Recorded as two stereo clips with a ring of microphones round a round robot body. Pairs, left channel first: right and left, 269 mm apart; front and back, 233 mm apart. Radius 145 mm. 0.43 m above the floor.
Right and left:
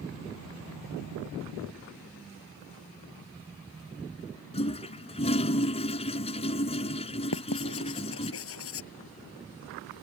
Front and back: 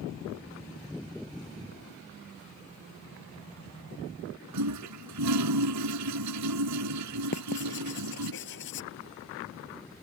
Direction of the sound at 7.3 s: 50° right.